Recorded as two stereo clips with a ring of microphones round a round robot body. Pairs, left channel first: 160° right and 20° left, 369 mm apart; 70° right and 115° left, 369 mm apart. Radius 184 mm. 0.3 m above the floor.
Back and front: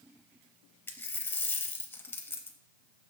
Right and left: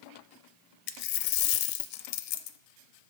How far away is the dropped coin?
About 0.5 m.